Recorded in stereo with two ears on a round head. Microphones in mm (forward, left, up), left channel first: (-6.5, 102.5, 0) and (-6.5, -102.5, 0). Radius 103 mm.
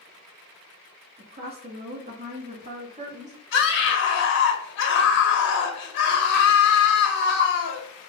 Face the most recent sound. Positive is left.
turn(degrees=55)  # may be behind; listen again after turning